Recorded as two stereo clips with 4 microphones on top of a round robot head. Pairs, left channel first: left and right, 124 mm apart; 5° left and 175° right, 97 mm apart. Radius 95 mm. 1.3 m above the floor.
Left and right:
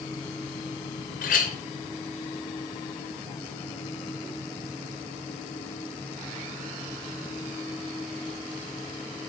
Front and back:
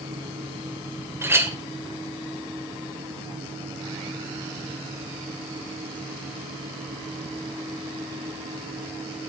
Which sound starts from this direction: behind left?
A clink, at 1.2 s.